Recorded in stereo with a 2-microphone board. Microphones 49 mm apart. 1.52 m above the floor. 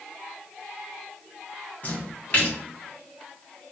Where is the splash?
30° left (ahead or behind), 1.2 m.